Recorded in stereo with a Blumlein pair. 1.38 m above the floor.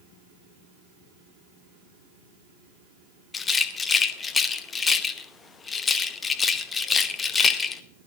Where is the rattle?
15° left, 0.8 m.